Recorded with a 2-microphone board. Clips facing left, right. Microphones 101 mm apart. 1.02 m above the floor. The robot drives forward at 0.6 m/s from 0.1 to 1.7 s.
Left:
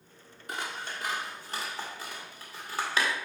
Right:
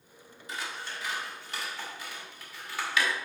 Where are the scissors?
60° left (ahead or behind), 1.3 m; by 3.1 s 40° left (ahead or behind), 1.7 m.